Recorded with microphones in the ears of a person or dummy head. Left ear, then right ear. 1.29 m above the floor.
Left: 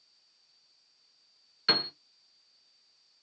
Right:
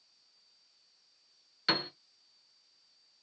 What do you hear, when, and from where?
1.7 s a piano: centre (ahead or behind), 1.2 m